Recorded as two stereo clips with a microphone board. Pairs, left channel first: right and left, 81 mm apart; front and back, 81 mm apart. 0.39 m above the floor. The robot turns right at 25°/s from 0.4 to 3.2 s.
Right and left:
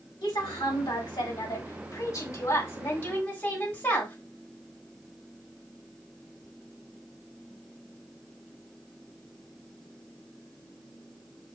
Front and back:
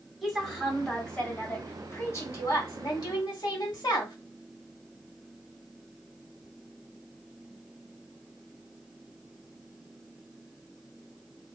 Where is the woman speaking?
95° right, 3 m; by 4.2 s 25° right, 3 m.